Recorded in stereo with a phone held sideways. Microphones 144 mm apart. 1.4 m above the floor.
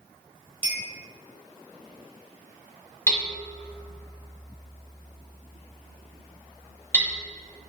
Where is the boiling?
I don't hear boiling.